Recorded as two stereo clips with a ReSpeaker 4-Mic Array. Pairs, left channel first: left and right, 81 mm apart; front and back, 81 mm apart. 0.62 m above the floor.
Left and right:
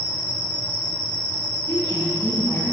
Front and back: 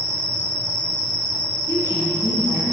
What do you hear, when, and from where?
0.0 s an insect: 170° right, 3 m
1.7 s a woman speaking: 150° left, 3.5 m